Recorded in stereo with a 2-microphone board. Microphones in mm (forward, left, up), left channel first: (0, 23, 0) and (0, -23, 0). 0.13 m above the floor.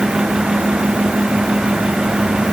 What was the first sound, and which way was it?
Only background noise.